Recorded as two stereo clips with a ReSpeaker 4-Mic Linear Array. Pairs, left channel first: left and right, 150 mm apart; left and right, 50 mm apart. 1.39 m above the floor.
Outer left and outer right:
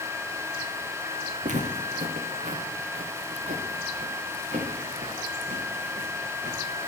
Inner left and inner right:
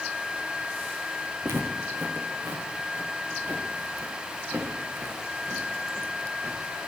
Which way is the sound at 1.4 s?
55° right (ahead or behind).